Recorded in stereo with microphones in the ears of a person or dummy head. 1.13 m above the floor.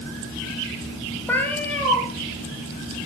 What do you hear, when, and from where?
1.3 s a cat meowing: 15° left (ahead or behind), 3 m